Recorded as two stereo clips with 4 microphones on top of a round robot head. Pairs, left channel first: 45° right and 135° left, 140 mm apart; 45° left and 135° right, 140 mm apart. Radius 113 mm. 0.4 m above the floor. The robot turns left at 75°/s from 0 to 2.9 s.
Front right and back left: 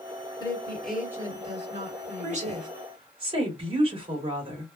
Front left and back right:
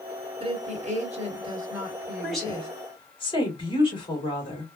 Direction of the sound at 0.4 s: 100° right.